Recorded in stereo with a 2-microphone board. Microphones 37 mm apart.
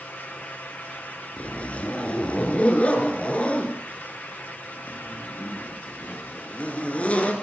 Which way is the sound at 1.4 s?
35° left (ahead or behind).